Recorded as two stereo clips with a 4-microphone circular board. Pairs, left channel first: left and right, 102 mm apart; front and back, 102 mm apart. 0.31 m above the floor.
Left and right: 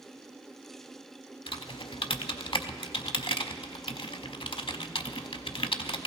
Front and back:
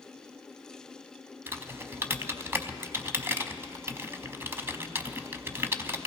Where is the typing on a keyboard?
115° left, 0.6 m.